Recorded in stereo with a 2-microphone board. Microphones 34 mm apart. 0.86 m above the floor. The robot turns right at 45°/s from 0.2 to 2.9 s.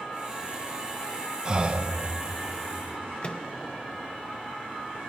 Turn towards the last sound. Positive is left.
turn(degrees=35)  # may be behind; listen again after turning